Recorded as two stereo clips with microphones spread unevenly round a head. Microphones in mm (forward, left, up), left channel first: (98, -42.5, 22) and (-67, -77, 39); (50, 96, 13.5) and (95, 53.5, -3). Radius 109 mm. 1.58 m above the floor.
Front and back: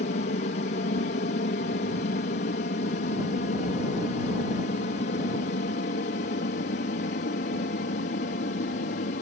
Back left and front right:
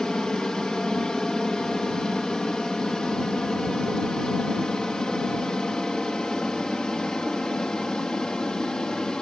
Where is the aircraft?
55° left; by 9.2 s 60° left.